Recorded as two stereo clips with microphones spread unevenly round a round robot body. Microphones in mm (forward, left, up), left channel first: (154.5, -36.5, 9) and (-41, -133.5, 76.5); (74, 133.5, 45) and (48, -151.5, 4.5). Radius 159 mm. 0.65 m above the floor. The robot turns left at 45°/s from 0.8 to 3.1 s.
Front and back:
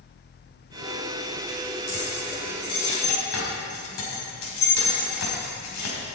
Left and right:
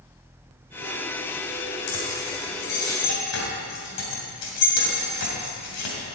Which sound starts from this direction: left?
Keys jangling, at 1.9 s.